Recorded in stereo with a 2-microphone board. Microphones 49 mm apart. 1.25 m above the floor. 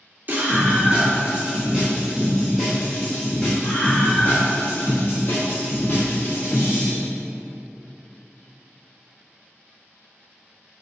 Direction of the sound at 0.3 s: 40° right (ahead or behind).